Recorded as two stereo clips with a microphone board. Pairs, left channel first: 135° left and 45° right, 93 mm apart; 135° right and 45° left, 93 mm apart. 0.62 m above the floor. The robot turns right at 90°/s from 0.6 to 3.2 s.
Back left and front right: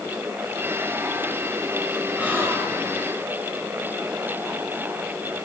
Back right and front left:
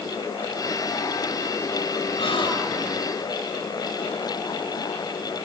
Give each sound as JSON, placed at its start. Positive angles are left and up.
{"t": 2.2, "sound": "a gasp", "azimuth_deg": -125, "distance_m": 8.0}